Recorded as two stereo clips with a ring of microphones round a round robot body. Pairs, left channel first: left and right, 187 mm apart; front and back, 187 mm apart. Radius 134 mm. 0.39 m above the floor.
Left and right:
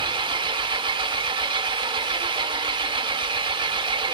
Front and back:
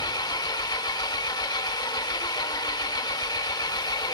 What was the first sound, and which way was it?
An engine running, 50° right.